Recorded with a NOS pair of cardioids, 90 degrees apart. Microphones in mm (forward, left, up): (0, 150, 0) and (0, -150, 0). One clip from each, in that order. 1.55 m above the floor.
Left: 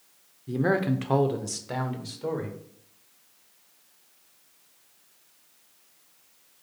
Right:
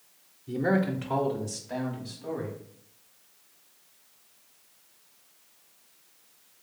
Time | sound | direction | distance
0.5 | a man speaking | 15° left | 0.6 m